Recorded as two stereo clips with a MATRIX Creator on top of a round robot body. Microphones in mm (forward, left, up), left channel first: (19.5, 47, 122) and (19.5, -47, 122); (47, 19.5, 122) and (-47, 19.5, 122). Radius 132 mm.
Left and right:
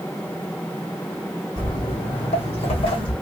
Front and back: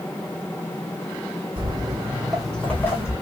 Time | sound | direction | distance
1.6 | footsteps | 140° left | 0.9 m